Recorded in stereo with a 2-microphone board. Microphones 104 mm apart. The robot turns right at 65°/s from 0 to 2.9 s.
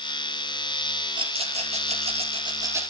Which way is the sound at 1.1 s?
50° right (ahead or behind).